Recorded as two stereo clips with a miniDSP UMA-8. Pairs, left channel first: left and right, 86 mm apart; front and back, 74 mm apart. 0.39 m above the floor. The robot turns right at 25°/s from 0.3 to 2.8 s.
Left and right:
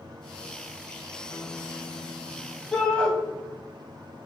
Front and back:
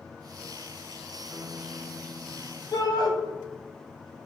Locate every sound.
1.3 s a guitar: 115° left, 1.1 m; by 2.6 s 150° left, 1.1 m
2.7 s a shout: 10° left, 2 m